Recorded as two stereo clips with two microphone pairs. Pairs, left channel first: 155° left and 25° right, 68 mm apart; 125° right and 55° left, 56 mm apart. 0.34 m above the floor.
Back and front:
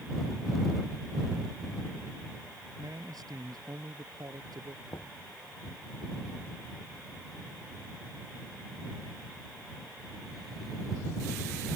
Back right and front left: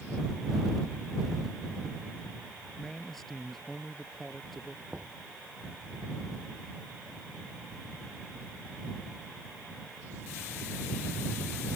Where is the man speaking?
40° right.